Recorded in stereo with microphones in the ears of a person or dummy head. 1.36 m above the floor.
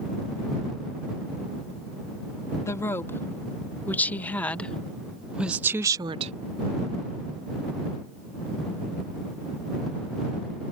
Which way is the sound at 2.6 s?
15° left (ahead or behind).